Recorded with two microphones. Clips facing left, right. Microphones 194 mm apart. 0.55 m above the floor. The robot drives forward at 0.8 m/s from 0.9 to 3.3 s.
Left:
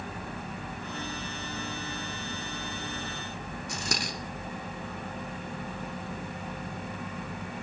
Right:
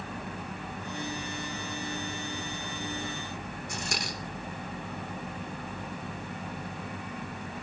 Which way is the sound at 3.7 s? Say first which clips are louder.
Left 3 dB; 75° left (ahead or behind).